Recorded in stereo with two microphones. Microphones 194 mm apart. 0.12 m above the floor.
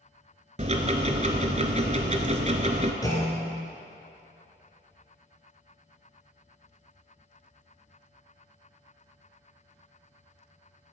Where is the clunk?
20° left (ahead or behind), 1.9 m.